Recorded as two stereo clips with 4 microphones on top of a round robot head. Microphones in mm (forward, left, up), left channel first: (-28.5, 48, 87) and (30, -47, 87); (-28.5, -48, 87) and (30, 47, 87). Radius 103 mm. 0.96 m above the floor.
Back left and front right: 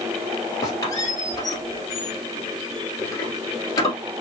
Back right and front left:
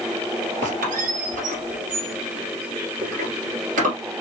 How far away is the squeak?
About 1.9 m.